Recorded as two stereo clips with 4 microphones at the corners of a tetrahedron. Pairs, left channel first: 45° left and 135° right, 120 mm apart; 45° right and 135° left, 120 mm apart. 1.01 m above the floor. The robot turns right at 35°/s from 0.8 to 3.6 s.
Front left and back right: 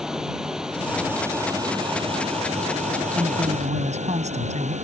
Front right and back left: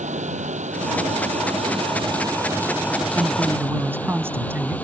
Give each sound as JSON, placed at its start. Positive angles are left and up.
{"t": 0.0, "sound": "running water", "azimuth_deg": 140}
{"t": 3.1, "sound": "a man speaking", "azimuth_deg": -170}